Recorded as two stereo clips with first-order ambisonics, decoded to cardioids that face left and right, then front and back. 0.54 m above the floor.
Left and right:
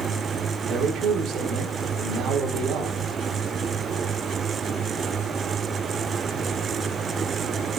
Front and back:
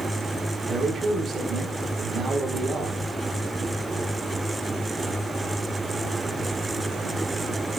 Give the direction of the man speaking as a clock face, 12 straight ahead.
4 o'clock.